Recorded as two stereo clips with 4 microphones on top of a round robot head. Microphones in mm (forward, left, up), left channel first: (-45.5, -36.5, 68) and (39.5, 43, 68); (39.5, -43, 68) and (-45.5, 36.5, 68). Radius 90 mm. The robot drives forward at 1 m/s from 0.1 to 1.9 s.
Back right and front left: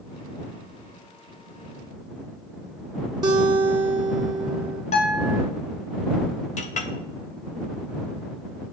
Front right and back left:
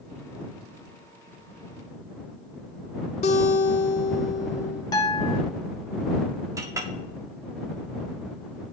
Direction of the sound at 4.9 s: 100° right.